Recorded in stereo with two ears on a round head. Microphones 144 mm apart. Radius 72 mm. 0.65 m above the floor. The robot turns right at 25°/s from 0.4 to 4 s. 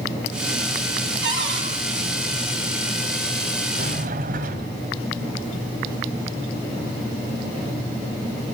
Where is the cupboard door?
85° right, 6 m; by 1.7 s 80° right, 6 m.